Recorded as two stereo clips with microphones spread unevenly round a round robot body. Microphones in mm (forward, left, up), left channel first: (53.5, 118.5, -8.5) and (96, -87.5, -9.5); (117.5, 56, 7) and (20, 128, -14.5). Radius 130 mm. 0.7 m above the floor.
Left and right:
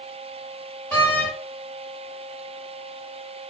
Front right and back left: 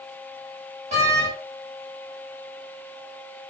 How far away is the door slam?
About 1.8 m.